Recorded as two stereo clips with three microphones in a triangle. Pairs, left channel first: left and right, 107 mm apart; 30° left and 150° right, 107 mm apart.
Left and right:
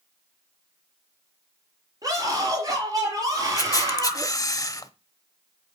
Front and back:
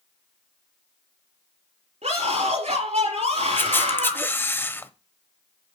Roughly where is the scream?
Behind right.